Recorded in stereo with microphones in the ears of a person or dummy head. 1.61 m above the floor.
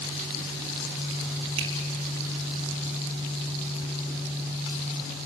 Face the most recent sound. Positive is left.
turn(degrees=-35)  # may be behind; listen again after turning